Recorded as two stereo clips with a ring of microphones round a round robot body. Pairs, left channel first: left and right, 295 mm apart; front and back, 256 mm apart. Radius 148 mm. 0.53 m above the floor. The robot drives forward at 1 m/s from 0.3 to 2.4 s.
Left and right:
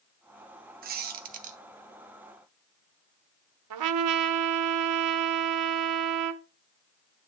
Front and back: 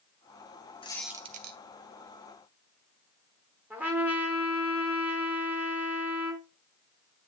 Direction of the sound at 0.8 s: 55° right.